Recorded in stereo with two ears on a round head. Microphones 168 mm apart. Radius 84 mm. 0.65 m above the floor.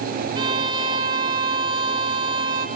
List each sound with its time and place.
0.3 s a violin: 25° right (ahead or behind), 1.2 m